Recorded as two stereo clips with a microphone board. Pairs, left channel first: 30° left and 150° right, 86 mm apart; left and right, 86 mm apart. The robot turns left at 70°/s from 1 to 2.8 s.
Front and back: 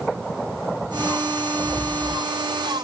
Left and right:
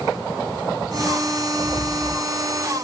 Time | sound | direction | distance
1.6 | a rattle | 95° left | 5.5 m